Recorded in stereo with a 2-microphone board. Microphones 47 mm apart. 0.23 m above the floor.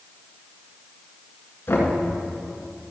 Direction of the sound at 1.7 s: 55° left (ahead or behind).